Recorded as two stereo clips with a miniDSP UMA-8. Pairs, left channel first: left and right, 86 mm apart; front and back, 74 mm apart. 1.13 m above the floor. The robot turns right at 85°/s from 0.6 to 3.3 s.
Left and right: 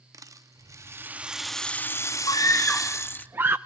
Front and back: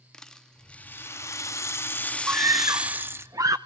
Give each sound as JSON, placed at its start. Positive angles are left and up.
{"t": 0.1, "sound": "a rattle", "azimuth_deg": -75, "distance_m": 0.6}
{"t": 2.3, "sound": "a scream", "azimuth_deg": 120, "distance_m": 0.5}